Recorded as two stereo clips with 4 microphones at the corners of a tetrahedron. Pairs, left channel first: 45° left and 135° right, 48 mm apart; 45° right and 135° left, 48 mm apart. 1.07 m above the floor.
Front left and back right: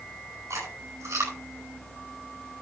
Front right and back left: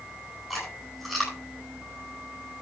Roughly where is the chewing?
Behind right.